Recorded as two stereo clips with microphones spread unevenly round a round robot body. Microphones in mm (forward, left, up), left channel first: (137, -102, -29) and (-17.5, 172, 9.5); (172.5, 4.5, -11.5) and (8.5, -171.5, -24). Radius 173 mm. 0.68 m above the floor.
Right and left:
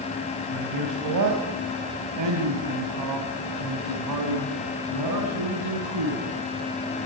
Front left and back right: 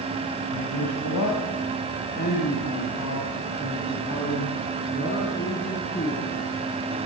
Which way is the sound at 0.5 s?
85° left.